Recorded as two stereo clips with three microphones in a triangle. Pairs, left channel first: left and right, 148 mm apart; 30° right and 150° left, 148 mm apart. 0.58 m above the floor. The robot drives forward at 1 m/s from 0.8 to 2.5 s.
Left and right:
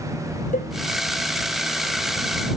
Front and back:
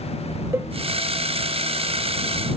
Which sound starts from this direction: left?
A cowbell, at 0.5 s.